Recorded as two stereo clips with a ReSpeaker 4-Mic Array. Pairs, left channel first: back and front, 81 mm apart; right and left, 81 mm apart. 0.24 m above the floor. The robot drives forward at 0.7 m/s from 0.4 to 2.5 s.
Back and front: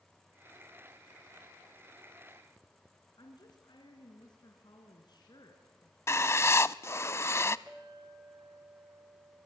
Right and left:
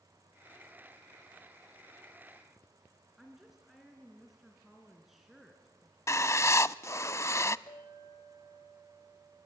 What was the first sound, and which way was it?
A woman speaking, 175° left.